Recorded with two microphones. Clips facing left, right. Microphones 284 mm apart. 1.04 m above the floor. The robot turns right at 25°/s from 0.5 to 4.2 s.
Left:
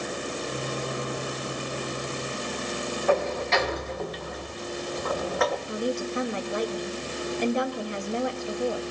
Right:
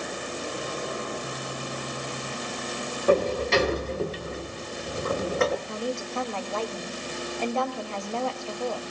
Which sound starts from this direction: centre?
A woman speaking, at 5.7 s.